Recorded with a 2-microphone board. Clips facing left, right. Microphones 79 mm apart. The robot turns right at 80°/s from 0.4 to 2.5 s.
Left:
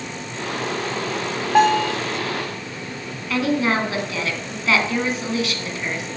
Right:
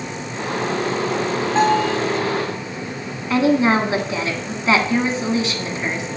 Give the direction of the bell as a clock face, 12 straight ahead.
9 o'clock.